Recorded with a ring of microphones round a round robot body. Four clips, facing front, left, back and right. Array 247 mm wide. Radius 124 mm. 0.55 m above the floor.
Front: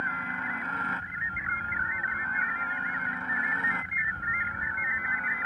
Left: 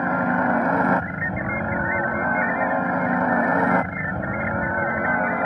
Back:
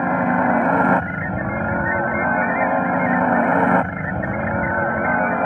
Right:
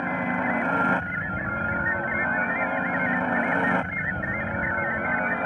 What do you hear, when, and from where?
0.0 s a helicopter: 160° left